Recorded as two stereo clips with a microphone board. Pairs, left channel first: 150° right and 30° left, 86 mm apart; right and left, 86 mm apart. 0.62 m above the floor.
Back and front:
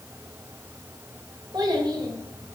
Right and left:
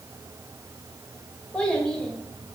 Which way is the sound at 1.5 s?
10° right.